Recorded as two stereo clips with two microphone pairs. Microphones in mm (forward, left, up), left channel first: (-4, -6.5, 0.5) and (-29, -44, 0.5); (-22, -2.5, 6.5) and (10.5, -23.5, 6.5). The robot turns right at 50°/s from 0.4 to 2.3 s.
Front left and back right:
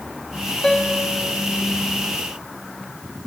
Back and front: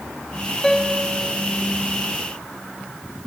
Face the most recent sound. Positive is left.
turn(degrees=-175)